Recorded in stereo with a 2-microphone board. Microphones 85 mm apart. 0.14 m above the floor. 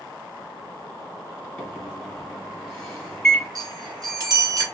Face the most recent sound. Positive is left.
turn(degrees=-40)  # may be behind; listen again after turning